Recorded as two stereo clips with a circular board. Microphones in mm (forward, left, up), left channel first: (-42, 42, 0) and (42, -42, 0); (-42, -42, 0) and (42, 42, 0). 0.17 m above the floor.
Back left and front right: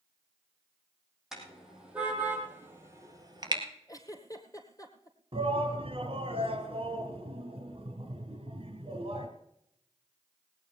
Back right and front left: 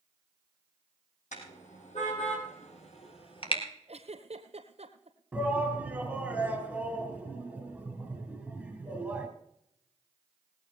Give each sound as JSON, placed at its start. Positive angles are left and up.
{"t": 1.3, "sound": "a car horn", "azimuth_deg": -130, "distance_m": 4.5}
{"t": 3.9, "sound": "a giggle", "azimuth_deg": 75, "distance_m": 1.8}
{"t": 5.3, "sound": "a shout", "azimuth_deg": -35, "distance_m": 2.5}